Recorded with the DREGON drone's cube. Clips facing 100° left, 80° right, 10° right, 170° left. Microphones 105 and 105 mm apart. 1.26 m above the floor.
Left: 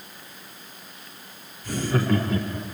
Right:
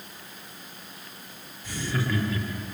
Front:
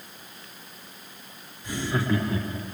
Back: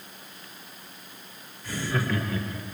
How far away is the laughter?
About 4 m.